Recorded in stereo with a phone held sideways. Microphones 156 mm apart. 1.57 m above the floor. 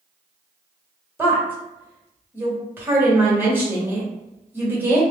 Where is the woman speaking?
15° right (ahead or behind), 1.1 m.